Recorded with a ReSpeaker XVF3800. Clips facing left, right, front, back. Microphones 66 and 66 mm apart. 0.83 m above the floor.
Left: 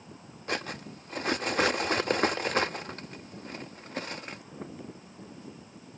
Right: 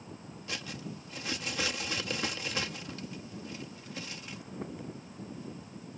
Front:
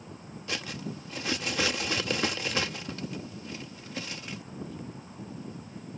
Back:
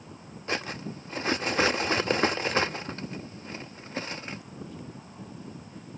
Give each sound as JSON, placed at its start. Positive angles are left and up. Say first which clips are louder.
{"t": 0.5, "sound": "cutlery clinking", "louder": "left 7 dB, back 4 dB", "azimuth_deg": 130}